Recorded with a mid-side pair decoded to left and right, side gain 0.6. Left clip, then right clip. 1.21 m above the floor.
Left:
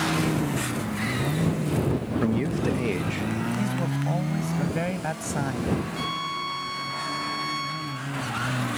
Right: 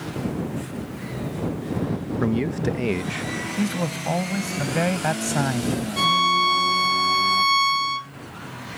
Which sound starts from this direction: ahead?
A man speaking, at 2.2 s.